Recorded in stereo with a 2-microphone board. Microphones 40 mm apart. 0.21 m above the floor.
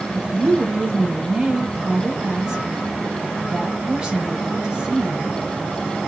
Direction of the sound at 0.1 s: 5° right (ahead or behind).